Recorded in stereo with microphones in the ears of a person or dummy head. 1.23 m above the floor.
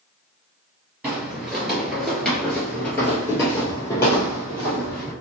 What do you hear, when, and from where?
1.0 s footsteps: 10° right (ahead or behind), 1.4 m; by 5.1 s 20° left (ahead or behind), 2 m